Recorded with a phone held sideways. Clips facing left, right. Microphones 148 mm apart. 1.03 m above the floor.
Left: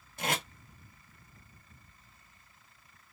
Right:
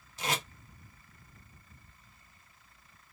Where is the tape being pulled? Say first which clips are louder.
Left 1 dB; 55° left (ahead or behind), 1.2 m.